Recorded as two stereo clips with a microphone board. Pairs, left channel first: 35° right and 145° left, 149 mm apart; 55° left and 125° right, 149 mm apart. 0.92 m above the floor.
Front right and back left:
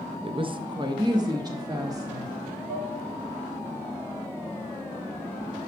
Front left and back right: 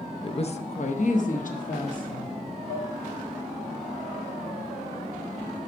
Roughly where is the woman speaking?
Left.